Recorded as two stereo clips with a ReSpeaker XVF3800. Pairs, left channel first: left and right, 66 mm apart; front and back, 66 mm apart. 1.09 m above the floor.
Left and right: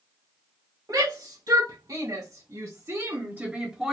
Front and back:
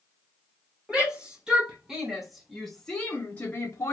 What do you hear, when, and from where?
0.9 s a shout: 110° right, 1.8 m; by 3.9 s 5° right, 0.8 m